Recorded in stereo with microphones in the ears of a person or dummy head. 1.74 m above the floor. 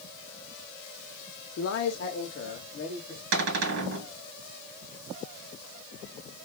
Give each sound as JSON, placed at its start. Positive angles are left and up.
{"t": 1.6, "sound": "a man speaking", "side_deg": 80, "distance_m": 0.7}
{"t": 3.3, "sound": "a cupboard door", "side_deg": -65, "distance_m": 1.3}